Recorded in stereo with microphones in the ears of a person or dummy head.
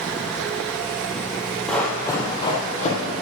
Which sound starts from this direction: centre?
Running footsteps, at 1.7 s.